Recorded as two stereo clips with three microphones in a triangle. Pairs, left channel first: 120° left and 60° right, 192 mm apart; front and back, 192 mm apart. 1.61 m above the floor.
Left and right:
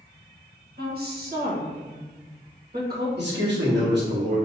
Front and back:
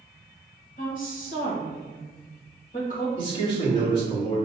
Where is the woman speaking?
35° right, 1.3 m.